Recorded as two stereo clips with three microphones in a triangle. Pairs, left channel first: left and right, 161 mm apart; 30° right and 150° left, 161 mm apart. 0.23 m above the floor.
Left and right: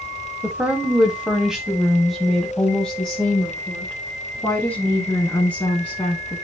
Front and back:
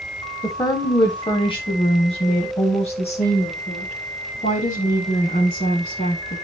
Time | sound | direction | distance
0.4 | a woman speaking | 30° right | 1.3 m